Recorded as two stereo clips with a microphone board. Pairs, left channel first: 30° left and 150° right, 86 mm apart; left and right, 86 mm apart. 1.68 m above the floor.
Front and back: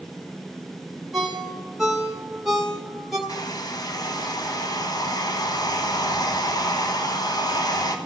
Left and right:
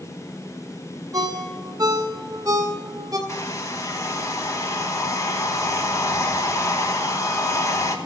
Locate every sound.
1.1 s a ringtone: 65° right, 1.9 m
3.3 s a hair dryer: 50° left, 1.1 m